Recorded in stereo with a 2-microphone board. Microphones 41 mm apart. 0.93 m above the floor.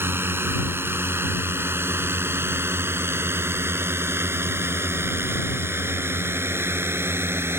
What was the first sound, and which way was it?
A drone, 65° right (ahead or behind).